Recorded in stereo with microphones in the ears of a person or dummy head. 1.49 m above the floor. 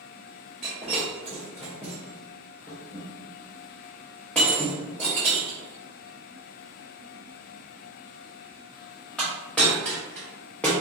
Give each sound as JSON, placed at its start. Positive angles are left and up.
{"t": 0.6, "sound": "breaking glass", "side_deg": 5, "distance_m": 0.6}